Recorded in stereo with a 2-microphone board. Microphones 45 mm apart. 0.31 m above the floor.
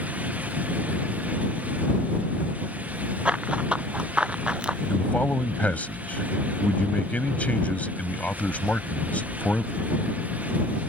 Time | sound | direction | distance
3.2 | running footsteps | 25° right (ahead or behind) | ?
4.9 | a man speaking | 35° left (ahead or behind) | ?